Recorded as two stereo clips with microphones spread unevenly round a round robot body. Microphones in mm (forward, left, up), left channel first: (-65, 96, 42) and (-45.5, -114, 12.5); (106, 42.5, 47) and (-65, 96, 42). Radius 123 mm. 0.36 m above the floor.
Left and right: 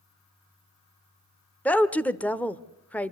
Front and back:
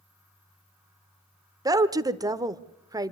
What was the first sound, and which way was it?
A woman speaking, 170° right.